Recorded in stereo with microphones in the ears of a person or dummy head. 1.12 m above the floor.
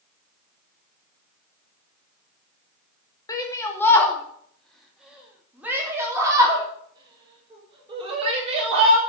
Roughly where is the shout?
Centre.